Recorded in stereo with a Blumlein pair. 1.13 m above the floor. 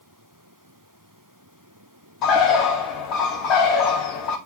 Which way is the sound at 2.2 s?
35° left.